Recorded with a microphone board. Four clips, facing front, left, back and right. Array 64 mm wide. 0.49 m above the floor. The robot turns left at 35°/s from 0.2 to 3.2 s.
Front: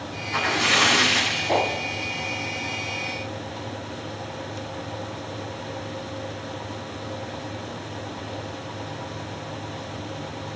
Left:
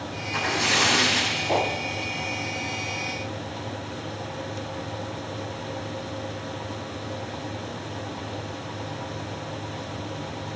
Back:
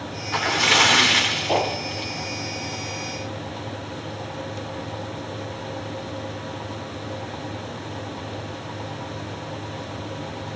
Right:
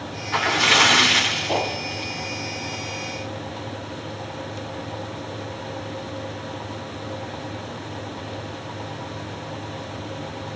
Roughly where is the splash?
Behind right.